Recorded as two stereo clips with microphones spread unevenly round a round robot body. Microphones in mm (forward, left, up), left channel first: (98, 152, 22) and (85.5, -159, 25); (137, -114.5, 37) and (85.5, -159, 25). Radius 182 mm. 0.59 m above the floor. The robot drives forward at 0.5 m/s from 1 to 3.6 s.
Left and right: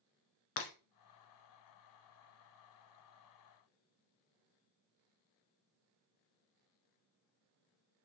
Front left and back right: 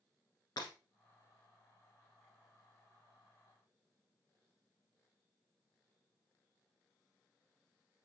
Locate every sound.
0.6 s breaking glass: 80° left, 1.4 m